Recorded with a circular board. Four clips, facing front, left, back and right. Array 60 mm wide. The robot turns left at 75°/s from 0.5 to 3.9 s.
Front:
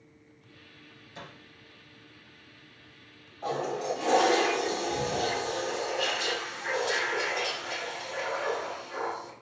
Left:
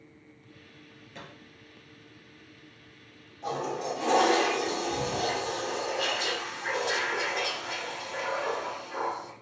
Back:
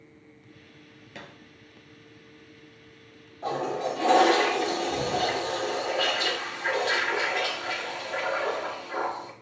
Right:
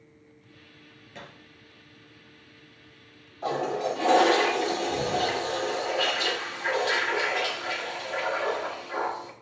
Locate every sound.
1.1 s a thud: 175° right, 2 m; by 1.3 s 175° left, 2 m
3.4 s a toilet flushing: 85° right, 1.5 m; by 9.3 s 125° right, 1.5 m